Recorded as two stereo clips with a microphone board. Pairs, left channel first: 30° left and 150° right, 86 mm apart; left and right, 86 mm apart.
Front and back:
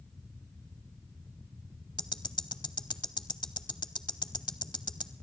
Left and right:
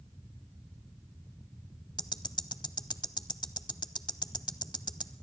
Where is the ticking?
60° left, 0.6 m.